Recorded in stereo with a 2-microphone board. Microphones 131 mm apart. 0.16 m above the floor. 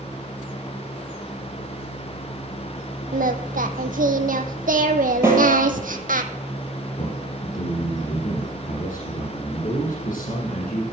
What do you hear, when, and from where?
3.1 s singing: 80° right, 1.0 m
5.2 s a snare drum: 15° right (ahead or behind), 5 m
7.0 s a man speaking: 75° left (ahead or behind), 6.5 m